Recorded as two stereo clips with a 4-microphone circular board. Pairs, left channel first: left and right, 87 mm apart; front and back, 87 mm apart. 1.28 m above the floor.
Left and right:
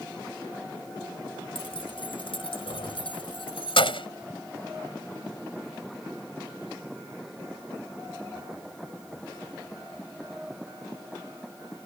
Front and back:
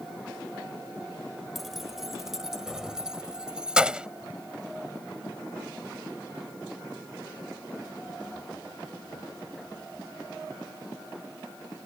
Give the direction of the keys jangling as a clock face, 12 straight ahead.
9 o'clock.